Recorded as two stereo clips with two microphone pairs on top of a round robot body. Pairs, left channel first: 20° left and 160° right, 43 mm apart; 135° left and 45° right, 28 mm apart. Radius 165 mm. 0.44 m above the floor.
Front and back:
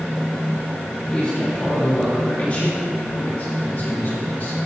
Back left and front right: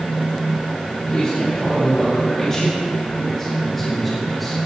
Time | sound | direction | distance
1.1 | a man speaking | 80° left | 4.5 m